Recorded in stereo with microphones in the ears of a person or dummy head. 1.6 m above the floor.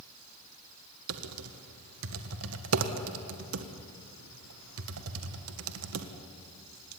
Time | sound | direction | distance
1.1 | typing on a keyboard | 65° right (ahead or behind) | 1.7 m